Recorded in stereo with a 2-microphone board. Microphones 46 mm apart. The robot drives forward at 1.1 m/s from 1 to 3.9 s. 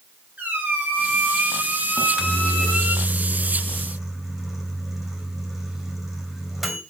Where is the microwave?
25° right (ahead or behind), 0.6 m; by 6.8 s 5° right (ahead or behind), 2.5 m.